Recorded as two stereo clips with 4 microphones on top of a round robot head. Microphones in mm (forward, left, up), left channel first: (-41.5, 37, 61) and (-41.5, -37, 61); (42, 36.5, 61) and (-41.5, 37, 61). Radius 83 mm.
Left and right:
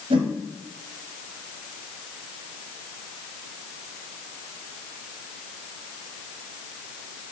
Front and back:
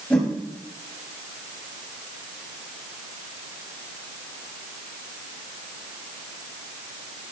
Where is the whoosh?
80° right, 1.3 m.